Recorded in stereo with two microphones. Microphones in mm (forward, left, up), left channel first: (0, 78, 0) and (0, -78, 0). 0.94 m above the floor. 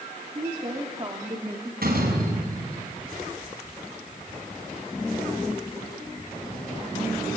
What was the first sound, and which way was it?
A woman speaking, 40° right (ahead or behind).